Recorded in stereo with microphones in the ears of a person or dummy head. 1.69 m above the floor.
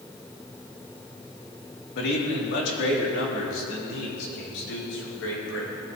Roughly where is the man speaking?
Left.